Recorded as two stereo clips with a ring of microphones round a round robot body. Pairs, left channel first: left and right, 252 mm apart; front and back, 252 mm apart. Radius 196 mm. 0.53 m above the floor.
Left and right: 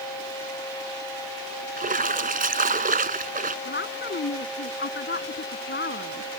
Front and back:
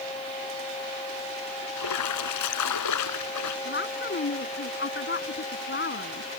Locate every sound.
1.8 s a splash: 30° right
3.6 s a woman speaking: 45° left